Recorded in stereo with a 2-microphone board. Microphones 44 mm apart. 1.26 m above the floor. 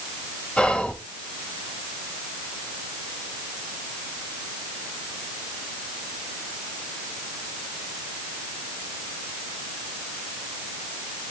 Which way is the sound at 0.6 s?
25° left (ahead or behind).